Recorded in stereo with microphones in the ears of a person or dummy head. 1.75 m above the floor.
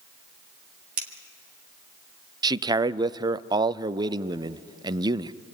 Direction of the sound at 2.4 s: 20° right (ahead or behind).